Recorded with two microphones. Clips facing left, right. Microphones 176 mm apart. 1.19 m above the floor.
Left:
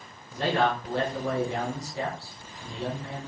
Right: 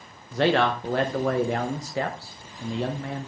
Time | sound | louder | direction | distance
0.3 | a man speaking | right 4 dB | 80° right | 1.0 m